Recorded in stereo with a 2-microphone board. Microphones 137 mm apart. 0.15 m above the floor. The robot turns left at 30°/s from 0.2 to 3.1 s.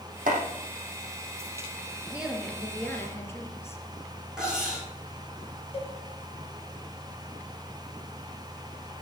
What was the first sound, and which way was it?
Chopping, 80° right.